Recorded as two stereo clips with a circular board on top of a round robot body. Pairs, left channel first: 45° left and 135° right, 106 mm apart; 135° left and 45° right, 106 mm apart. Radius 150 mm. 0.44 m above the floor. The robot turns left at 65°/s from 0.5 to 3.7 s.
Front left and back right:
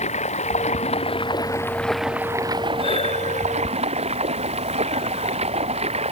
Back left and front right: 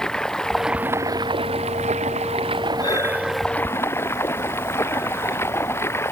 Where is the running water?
50° left; by 6.1 s 160° right.